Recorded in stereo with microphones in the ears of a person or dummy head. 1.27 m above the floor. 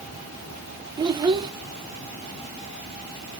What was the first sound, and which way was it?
A child speaking, 20° right (ahead or behind).